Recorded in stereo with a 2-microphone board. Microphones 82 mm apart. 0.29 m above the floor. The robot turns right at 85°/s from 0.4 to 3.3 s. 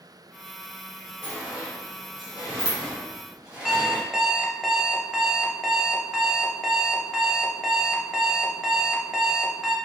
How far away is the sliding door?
About 1.9 m.